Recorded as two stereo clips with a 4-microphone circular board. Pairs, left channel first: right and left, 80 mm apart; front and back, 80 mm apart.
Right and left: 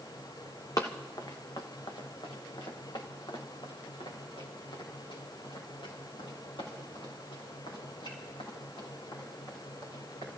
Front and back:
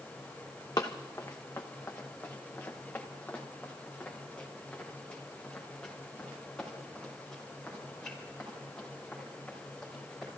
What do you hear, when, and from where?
0.8 s running footsteps: 40° right, 1.4 m; by 10.3 s 80° right, 8.5 m